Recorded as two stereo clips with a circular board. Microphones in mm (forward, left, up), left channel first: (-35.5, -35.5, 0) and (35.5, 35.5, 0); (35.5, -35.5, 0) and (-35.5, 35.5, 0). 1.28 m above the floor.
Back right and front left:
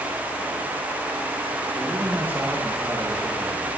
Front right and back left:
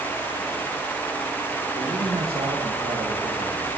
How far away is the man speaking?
About 2 m.